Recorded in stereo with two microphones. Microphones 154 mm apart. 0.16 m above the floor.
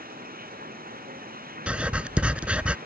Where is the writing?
10° right (ahead or behind).